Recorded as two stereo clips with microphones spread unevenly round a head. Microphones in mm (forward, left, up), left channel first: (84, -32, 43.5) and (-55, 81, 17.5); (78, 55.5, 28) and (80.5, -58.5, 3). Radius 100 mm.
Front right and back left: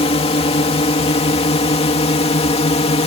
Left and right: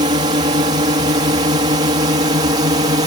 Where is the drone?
95° right; by 3.1 s 90° right.